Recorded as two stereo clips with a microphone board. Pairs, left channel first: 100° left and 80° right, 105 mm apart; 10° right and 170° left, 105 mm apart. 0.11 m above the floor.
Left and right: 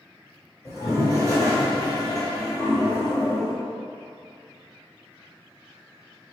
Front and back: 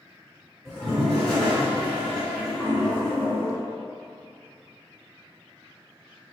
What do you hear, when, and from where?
0.7 s a toilet flushing: 75° left, 1.7 m